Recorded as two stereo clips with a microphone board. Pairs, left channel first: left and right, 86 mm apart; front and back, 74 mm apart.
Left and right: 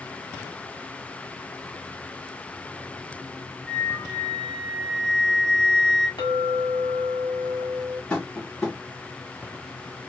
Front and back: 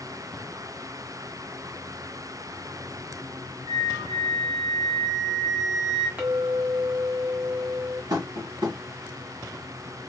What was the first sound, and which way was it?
A flute, 170° left.